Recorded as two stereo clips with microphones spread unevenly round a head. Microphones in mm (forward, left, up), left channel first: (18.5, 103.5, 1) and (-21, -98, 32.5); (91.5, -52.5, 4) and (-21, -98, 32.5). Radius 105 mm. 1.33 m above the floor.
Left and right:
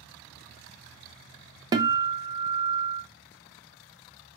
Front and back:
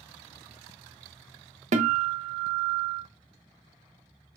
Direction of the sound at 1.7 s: 170° right.